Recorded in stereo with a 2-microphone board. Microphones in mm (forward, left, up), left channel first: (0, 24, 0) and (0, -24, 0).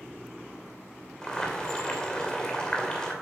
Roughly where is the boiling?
Centre.